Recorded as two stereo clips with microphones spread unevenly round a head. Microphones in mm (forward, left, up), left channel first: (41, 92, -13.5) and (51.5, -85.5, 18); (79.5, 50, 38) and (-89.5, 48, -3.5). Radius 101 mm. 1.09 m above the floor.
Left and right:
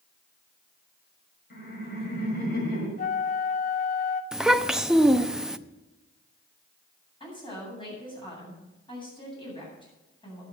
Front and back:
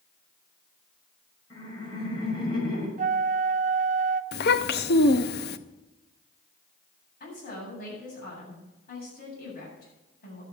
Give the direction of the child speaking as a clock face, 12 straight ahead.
12 o'clock.